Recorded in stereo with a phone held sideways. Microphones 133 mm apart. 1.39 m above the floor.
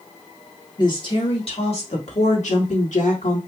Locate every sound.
0.8 s a woman speaking: 35° left (ahead or behind), 1.9 m; by 3.4 s 75° left (ahead or behind), 2 m